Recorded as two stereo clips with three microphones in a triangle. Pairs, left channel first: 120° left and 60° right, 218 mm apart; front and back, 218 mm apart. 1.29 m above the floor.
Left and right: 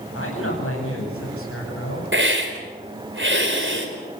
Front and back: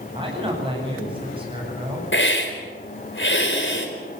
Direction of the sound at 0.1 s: 115° left.